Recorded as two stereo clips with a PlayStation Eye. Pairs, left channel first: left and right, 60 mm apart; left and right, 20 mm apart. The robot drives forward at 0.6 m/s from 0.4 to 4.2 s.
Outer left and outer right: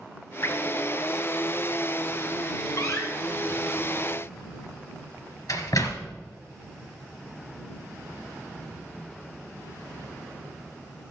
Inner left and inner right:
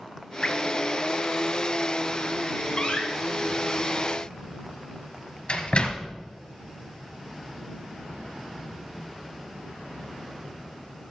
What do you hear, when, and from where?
0.4 s dripping: 50° left (ahead or behind), 1.7 m
2.8 s a door slam: 65° left (ahead or behind), 2.5 m; by 6.1 s 80° left, 2.5 m